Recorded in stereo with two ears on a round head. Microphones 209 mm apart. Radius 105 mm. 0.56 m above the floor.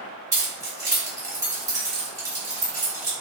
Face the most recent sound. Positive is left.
turn(degrees=-15)  # may be behind; listen again after turning